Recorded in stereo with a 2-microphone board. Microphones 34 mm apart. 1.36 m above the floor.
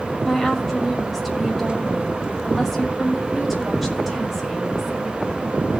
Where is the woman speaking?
5° right (ahead or behind), 5.5 m.